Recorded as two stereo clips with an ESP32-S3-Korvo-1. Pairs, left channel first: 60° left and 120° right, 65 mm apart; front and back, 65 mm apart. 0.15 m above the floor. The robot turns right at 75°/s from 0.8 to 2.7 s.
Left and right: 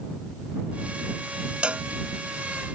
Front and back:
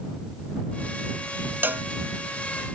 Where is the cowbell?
Straight behind; by 1.9 s 160° right.